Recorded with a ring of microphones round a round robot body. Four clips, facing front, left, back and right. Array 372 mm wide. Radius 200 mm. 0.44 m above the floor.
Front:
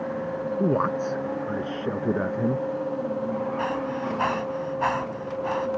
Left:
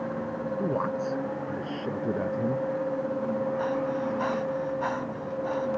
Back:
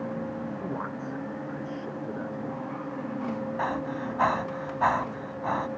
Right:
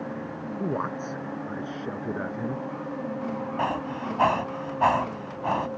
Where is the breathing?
110° right.